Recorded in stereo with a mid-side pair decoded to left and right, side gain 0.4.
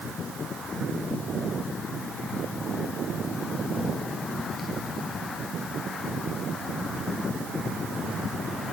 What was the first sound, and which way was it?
Only background noise.